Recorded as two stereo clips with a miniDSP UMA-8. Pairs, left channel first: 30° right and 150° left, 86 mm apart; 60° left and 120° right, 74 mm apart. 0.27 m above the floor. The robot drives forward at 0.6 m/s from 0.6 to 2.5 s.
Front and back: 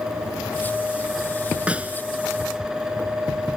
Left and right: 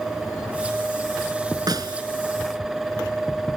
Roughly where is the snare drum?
Behind right.